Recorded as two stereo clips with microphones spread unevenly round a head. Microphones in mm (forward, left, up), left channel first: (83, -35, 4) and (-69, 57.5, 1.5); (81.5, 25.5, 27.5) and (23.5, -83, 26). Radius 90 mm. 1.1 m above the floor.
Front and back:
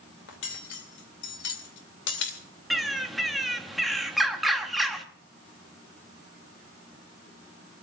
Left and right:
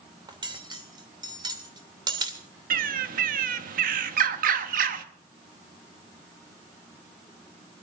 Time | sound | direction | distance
0.3 | cutlery clinking | 65° right | 2.5 m
2.7 | a bird | 120° right | 1.1 m